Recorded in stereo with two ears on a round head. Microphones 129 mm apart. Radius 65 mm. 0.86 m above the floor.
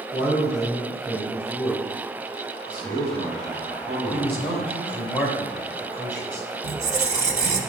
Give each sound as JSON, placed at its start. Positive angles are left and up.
{"t": 0.1, "sound": "a man speaking", "side_deg": 5, "distance_m": 2.5}
{"t": 2.6, "sound": "a man speaking", "side_deg": -10, "distance_m": 4.0}
{"t": 4.1, "sound": "a man speaking", "side_deg": 5, "distance_m": 3.0}
{"t": 6.6, "sound": "a squeak", "side_deg": -50, "distance_m": 1.1}